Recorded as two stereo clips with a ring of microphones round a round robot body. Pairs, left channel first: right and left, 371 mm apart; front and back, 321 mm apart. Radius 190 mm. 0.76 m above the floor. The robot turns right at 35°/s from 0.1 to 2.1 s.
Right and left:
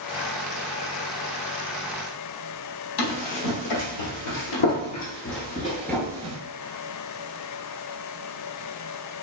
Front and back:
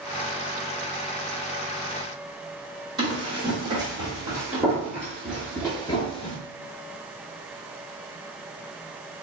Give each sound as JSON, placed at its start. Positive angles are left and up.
{"t": 3.0, "sound": "running footsteps", "azimuth_deg": -105, "distance_m": 1.8}